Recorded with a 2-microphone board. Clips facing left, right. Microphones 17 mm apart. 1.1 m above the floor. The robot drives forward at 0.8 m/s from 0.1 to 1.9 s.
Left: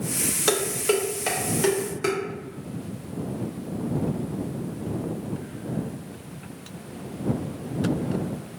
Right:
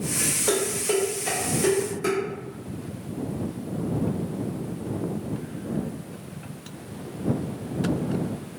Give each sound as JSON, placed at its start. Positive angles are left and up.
{"t": 0.5, "sound": "dishes clattering", "side_deg": 75, "distance_m": 0.8}